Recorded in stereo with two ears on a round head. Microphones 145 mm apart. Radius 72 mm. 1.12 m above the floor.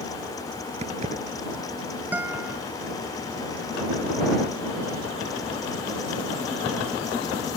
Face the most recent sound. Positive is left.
turn(degrees=-10)  # may be behind; listen again after turning